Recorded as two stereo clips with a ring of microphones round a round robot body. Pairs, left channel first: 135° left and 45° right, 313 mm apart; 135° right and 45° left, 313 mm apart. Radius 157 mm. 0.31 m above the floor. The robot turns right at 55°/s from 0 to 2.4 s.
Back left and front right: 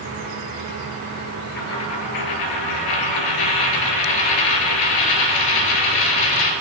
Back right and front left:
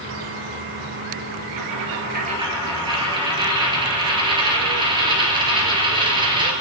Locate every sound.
1.6 s a dropped coin: 75° left, 2.5 m; by 6.5 s 120° left, 2.5 m